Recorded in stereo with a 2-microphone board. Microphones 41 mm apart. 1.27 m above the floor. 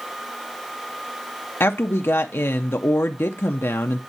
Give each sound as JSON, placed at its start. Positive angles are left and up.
{"t": 1.6, "sound": "a woman speaking", "side_deg": 70, "distance_m": 0.6}